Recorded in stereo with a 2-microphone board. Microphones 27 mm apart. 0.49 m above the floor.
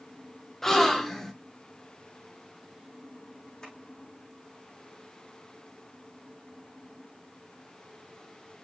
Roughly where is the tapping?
Left.